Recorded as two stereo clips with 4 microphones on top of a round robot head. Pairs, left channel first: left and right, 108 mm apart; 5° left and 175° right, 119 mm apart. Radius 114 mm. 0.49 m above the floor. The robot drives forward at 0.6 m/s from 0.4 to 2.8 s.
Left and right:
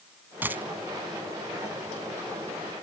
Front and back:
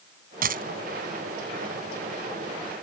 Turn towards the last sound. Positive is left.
turn(degrees=-175)